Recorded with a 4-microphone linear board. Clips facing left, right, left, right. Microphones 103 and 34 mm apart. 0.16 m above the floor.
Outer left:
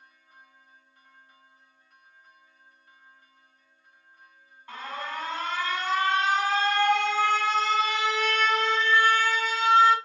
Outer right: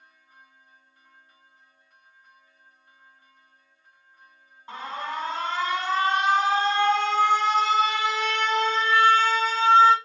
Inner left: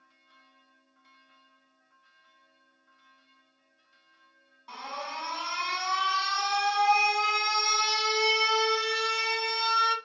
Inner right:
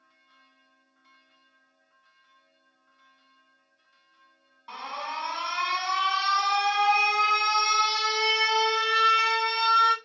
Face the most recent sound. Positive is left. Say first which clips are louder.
# outer right 3 dB, inner right 3 dB
turn(degrees=-20)  # may be behind; listen again after turning